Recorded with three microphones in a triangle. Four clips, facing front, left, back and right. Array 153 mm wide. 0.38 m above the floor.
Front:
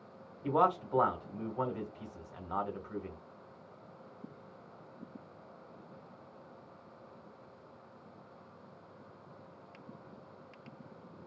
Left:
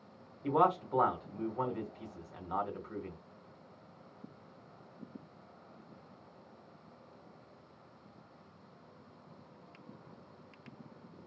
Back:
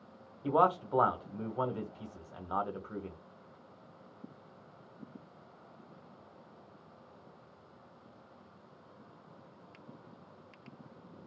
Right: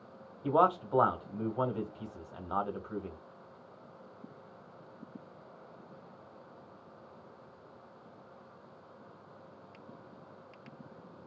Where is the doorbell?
No doorbell in this recording.